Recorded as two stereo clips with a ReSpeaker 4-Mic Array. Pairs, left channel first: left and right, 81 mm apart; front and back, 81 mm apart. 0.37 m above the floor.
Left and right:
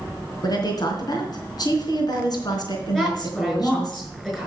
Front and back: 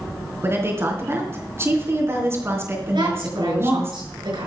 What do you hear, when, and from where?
0.4 s a woman speaking: 125° left, 3.5 m
2.9 s a woman speaking: 175° left, 6.5 m